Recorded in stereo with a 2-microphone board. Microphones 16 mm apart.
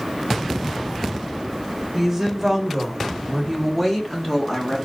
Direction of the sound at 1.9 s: 5° right (ahead or behind).